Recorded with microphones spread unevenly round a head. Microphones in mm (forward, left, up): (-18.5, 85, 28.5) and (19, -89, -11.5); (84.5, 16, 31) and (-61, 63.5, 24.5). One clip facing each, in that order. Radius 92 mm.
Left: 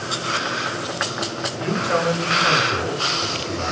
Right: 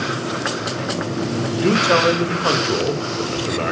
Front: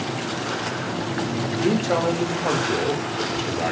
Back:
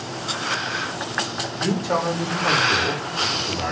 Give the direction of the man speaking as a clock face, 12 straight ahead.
3 o'clock.